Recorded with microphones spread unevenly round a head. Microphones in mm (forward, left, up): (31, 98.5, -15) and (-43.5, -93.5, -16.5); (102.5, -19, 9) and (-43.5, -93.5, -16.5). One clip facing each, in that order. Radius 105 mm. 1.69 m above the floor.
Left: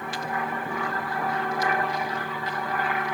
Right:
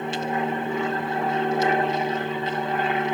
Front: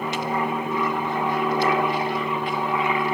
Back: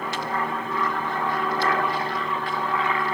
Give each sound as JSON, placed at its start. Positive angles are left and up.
{"t": 0.0, "sound": "an aircraft", "azimuth_deg": -45}